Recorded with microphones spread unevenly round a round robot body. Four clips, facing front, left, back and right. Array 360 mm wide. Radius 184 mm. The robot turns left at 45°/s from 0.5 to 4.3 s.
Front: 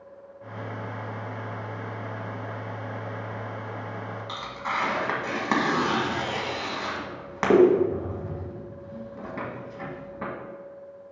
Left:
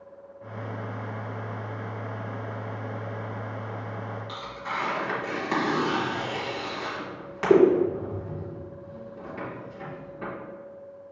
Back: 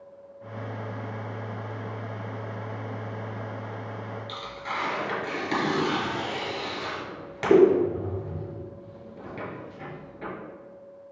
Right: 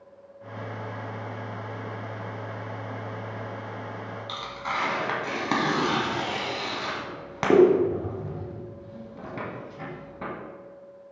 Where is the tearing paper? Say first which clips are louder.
Right 5 dB, front 5 dB; 50° right, 1.7 m.